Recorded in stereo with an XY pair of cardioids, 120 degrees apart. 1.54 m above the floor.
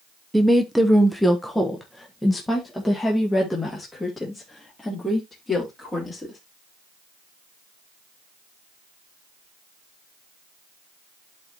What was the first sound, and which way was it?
A woman speaking, 10° right.